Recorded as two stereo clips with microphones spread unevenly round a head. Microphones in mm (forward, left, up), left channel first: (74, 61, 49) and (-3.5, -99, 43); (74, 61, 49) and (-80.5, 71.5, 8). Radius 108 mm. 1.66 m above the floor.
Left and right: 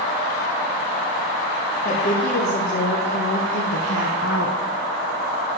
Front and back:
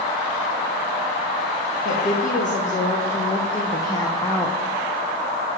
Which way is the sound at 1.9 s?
25° left.